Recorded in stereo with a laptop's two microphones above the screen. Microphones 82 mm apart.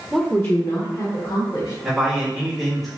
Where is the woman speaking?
5° right (ahead or behind), 0.6 m; by 1.7 s 70° left (ahead or behind), 1.9 m.